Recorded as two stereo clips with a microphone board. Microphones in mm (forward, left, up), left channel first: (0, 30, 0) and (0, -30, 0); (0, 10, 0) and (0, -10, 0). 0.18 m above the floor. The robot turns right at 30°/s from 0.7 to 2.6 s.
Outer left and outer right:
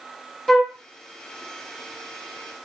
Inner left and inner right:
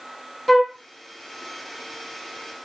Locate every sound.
0.5 s a flute: 10° left (ahead or behind), 0.6 m